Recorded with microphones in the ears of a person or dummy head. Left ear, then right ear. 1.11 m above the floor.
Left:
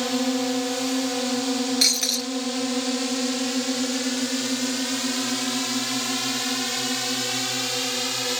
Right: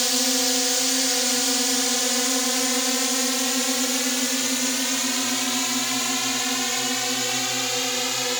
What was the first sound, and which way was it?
A drone, 60° right (ahead or behind).